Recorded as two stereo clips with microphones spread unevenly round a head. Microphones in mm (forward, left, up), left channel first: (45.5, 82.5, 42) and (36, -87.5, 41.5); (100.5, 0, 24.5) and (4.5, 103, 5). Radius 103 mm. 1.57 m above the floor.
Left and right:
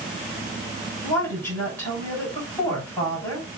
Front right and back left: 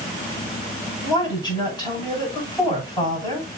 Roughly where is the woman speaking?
Ahead.